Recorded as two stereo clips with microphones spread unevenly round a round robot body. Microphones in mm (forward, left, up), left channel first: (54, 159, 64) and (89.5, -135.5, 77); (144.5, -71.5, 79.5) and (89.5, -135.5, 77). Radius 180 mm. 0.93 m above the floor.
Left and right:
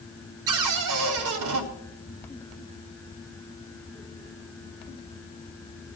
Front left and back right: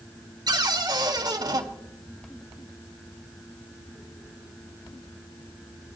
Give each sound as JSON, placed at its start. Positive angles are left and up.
{"t": 0.5, "sound": "a cupboard door", "azimuth_deg": -100, "distance_m": 2.5}